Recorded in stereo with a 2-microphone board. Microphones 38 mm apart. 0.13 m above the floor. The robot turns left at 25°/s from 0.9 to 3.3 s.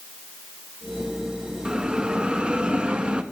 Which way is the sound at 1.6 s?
20° right (ahead or behind).